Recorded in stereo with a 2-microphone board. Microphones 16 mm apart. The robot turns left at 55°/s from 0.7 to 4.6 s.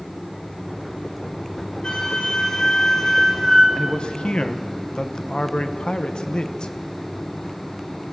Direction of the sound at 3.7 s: 120° left.